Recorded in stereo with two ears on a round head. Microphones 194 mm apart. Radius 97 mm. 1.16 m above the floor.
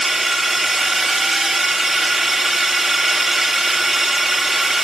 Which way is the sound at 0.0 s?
Centre (ahead or behind).